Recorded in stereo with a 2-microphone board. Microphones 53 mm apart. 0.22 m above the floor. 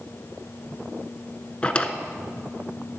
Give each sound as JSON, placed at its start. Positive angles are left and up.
{"t": 1.6, "sound": "a drawer", "side_deg": 25, "distance_m": 0.5}